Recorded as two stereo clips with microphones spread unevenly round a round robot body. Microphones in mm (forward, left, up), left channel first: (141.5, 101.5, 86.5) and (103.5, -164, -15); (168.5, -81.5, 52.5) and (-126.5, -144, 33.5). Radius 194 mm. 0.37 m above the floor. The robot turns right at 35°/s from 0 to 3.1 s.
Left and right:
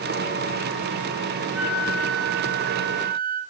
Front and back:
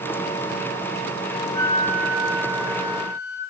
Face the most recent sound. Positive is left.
turn(degrees=-15)